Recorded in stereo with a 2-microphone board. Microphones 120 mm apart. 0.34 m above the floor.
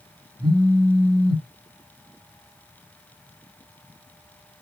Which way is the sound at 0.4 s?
20° right (ahead or behind).